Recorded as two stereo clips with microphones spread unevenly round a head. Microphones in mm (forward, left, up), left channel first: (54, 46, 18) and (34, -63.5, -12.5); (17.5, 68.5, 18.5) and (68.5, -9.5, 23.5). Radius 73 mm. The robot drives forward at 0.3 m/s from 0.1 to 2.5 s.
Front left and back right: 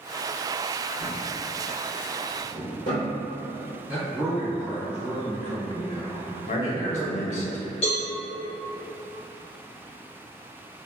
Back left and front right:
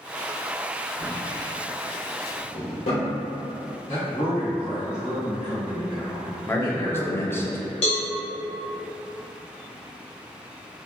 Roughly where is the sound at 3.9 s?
Behind.